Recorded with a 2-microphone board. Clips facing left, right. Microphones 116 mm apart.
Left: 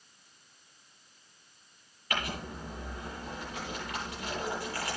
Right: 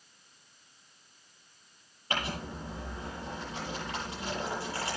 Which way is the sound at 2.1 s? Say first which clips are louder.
Right 1 dB; 30° right (ahead or behind).